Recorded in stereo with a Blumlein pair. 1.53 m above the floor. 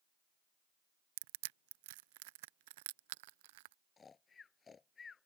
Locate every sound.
1.2 s crushing: 50° right
4.0 s snoring: 20° left